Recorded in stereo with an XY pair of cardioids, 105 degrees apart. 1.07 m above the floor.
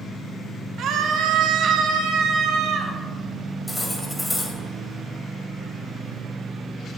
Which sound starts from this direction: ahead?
Cutlery clinking, at 3.7 s.